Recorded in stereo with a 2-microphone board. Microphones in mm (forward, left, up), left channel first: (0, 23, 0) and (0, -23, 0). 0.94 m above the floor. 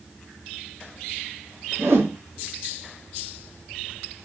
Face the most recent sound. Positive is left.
turn(degrees=-70)  # may be behind; listen again after turning